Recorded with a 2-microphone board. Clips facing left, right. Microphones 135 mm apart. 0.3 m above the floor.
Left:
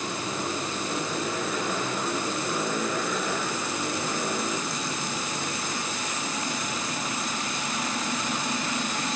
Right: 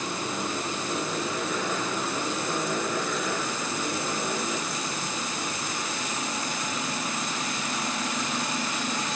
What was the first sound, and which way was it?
Only background noise.